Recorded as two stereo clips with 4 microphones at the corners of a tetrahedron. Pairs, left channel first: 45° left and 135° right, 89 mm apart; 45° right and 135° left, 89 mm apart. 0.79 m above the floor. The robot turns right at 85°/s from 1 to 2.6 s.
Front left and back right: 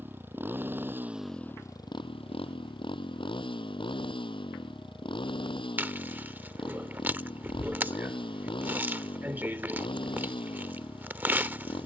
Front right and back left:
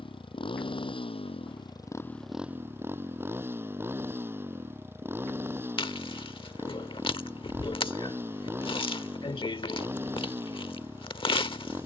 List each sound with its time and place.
0.0 s a motorcycle: 65° right; by 11.8 s 70° left
5.8 s chewing: 65° right